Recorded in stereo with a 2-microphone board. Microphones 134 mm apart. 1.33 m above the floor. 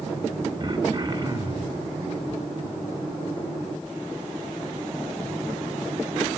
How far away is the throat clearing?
About 2 m.